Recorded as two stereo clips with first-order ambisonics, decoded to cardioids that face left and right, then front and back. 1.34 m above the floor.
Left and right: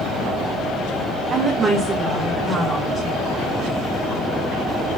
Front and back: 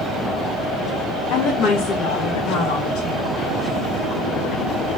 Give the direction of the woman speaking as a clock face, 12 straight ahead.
1 o'clock.